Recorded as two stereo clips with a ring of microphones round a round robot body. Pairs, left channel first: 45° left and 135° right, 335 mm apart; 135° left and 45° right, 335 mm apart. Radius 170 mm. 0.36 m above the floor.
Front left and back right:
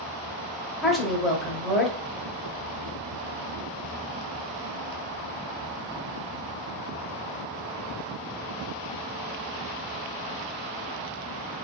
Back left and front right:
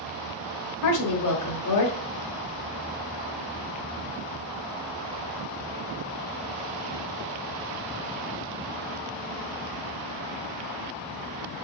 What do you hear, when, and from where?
0.8 s a woman speaking: 135° left, 1.3 m